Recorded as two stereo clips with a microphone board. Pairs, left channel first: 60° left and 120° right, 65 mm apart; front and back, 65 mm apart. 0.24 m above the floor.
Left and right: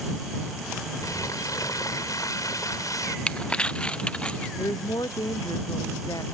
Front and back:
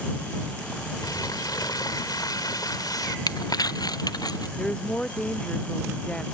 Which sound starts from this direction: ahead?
Crumpling, at 3.3 s.